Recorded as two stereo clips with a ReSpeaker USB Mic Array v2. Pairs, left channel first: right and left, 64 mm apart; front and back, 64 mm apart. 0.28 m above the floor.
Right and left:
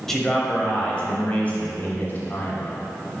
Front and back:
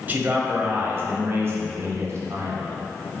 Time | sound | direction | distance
0.1 | a man speaking | 170° right | 1.1 m